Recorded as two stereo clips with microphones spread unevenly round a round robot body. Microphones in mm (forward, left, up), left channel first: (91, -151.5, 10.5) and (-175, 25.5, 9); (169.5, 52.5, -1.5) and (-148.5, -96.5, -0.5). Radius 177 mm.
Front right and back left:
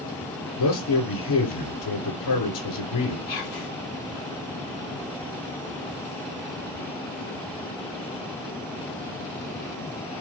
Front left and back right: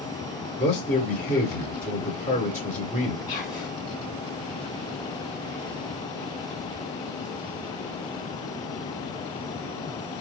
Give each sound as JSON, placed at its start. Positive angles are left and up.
{"t": 0.6, "sound": "a man speaking", "azimuth_deg": -45, "distance_m": 1.7}
{"t": 3.3, "sound": "whispering", "azimuth_deg": -35, "distance_m": 1.7}